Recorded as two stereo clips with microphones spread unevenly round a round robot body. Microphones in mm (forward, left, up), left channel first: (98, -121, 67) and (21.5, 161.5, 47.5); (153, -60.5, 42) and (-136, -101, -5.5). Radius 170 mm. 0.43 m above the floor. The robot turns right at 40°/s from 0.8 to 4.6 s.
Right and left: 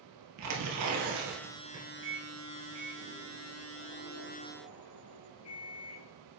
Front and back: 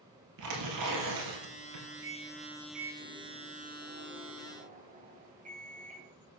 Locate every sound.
0.4 s tearing paper: 145° left, 3 m; by 1.9 s 170° right, 3 m
2.0 s a microwave: 145° left, 2.5 m; by 6.1 s 115° right, 2.5 m